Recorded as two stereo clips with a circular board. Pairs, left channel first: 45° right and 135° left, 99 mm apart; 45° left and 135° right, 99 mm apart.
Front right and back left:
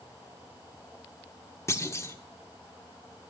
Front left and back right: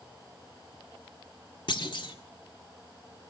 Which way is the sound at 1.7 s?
15° left.